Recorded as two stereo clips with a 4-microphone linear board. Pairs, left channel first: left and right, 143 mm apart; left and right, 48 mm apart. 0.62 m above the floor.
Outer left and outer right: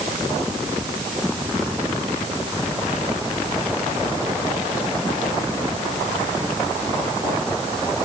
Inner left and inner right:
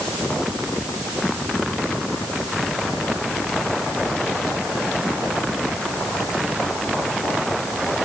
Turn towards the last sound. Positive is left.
No sound to turn to.